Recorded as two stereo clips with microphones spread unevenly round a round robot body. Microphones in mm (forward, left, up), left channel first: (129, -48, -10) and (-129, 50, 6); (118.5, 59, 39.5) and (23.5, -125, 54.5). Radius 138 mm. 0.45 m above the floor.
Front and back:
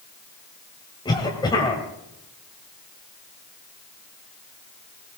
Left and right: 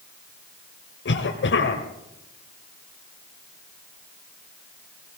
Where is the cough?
55° left, 2 m.